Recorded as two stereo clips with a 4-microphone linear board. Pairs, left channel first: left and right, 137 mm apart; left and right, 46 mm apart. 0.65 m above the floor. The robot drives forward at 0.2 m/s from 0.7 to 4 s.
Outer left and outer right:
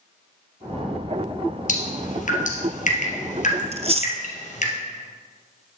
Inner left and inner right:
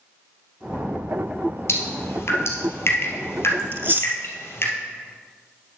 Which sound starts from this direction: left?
Dripping, at 1.7 s.